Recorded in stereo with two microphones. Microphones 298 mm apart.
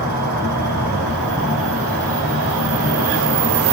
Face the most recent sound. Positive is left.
turn(degrees=35)  # may be behind; listen again after turning